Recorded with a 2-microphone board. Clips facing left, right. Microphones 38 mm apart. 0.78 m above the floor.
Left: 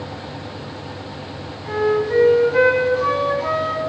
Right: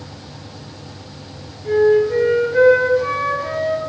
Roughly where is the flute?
Left.